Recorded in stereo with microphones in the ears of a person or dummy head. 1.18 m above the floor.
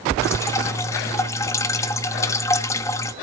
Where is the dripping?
15° left (ahead or behind), 0.7 m.